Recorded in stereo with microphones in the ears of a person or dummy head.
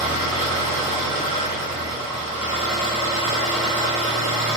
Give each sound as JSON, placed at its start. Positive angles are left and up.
{"t": 0.0, "sound": "an engine running", "side_deg": -15, "distance_m": 1.1}